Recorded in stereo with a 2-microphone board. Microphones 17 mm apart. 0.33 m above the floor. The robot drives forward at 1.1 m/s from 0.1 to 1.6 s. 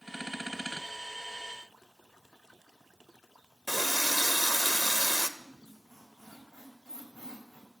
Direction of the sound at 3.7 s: 15° left (ahead or behind).